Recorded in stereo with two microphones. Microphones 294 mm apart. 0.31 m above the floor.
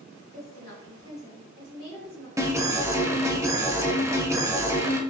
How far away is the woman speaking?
About 2 m.